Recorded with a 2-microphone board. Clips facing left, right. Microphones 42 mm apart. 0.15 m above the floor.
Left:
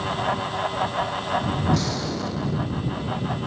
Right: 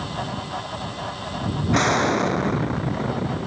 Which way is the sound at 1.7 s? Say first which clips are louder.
Right 6 dB; 55° right (ahead or behind).